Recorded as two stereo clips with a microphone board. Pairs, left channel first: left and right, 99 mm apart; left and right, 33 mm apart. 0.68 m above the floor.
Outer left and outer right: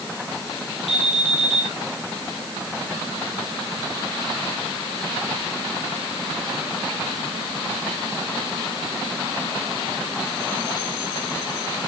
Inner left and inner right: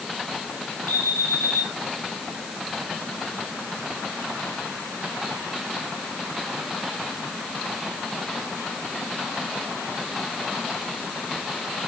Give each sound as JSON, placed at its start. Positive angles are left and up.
{"t": 0.9, "sound": "an alarm", "side_deg": 75, "distance_m": 7.0}